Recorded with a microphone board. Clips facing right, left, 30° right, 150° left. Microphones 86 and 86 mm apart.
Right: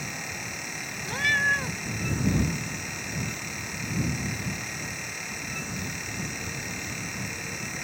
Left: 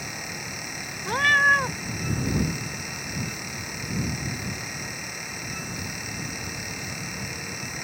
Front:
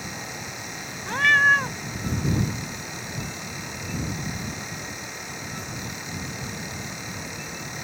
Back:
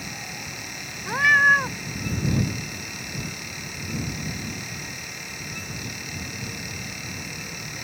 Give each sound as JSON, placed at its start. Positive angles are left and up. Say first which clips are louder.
{"t": 1.1, "sound": "a cat meowing", "louder": "left 6 dB, back 1 dB", "azimuth_deg": 70}